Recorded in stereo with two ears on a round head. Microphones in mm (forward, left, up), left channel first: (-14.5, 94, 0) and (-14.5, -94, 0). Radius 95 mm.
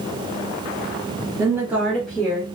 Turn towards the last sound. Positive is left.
turn(degrees=10)  # may be behind; listen again after turning